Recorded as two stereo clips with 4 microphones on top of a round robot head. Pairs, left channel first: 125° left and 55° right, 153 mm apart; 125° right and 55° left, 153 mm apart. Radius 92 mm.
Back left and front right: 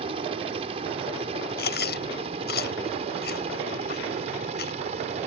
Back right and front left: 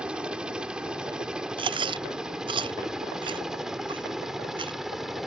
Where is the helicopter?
25° right; by 5.3 s 30° right.